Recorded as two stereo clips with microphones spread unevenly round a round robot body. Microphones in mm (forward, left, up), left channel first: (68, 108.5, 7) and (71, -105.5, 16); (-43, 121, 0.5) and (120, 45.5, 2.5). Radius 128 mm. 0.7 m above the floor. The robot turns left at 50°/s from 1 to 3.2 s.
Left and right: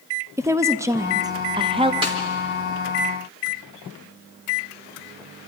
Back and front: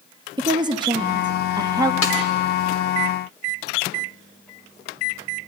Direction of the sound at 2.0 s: 160° right.